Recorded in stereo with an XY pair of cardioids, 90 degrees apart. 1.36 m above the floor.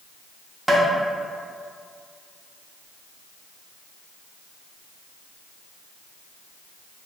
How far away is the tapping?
About 0.8 m.